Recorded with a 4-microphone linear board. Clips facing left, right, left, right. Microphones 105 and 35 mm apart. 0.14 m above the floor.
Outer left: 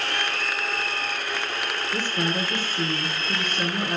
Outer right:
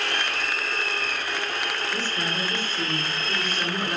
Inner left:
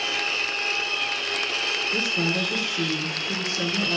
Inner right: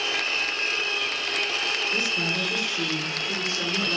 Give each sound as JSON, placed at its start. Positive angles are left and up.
{"t": 1.9, "sound": "a woman speaking", "side_deg": 15, "distance_m": 2.5}